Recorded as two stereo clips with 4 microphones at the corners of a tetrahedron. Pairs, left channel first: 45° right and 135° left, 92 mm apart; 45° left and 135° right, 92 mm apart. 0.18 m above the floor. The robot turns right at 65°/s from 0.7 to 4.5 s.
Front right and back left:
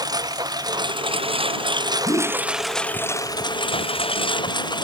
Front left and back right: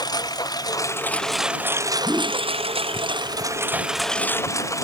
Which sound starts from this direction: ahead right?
A whoosh, at 2.0 s.